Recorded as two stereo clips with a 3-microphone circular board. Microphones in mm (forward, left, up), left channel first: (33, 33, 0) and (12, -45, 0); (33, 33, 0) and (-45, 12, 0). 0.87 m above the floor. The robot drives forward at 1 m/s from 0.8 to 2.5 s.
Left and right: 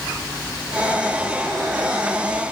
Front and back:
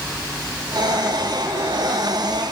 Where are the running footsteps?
I don't hear running footsteps.